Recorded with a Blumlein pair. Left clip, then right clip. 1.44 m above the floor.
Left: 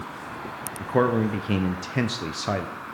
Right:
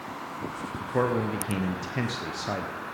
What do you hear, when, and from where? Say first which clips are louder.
0.8 s a man speaking: left 4 dB; 20° left, 0.7 m